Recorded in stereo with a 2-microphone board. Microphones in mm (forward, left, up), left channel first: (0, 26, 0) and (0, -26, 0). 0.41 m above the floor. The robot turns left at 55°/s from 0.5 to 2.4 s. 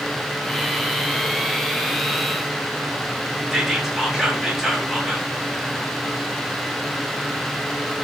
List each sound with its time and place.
3.5 s whispering: 10° right (ahead or behind), 0.8 m